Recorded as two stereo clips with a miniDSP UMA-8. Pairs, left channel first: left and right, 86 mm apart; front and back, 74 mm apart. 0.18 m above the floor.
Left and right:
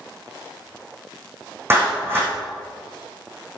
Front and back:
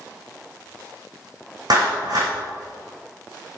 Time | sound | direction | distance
1.7 | a clap | 155° right | 7 m